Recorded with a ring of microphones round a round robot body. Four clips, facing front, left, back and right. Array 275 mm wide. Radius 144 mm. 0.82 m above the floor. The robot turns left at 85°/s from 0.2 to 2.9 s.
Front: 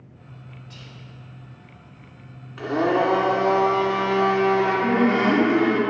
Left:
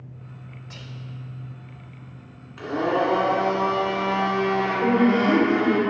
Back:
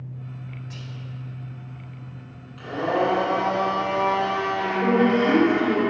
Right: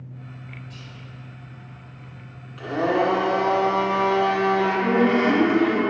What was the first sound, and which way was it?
Whispering, 110° left.